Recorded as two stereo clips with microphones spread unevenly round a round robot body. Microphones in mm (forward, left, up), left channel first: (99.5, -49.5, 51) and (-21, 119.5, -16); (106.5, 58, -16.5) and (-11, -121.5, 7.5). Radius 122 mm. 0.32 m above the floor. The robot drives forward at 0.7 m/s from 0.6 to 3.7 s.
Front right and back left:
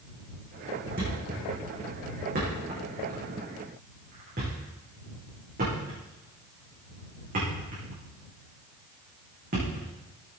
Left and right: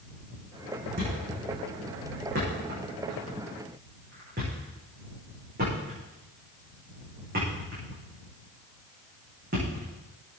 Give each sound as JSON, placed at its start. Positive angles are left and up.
{"t": 1.0, "sound": "a thud", "azimuth_deg": 180, "distance_m": 8.0}